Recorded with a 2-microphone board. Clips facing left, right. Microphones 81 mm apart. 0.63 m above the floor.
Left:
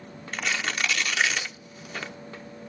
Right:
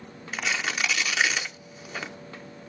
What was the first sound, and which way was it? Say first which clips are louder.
Tearing paper: even; 5° right (ahead or behind).